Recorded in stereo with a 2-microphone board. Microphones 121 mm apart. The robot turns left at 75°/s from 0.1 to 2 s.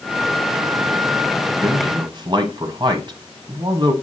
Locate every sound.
1.6 s a man speaking: 35° right (ahead or behind), 1.4 m; by 3.9 s 40° right (ahead or behind), 1.4 m